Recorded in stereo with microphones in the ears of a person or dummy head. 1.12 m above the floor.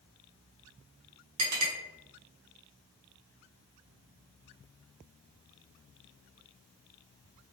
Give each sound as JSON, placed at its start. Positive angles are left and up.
{"t": 1.4, "sound": "a clink", "side_deg": -90, "distance_m": 1.3}